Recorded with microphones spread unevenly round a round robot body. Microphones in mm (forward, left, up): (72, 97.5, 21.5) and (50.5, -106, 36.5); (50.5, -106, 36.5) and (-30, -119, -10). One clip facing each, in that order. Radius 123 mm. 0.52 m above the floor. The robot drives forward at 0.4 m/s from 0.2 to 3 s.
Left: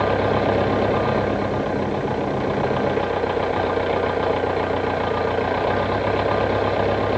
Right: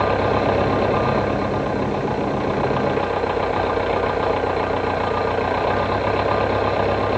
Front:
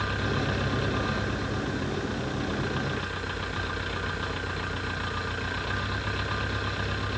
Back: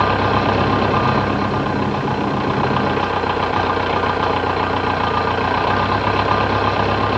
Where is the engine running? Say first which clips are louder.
Even, back 14 dB; 170° left.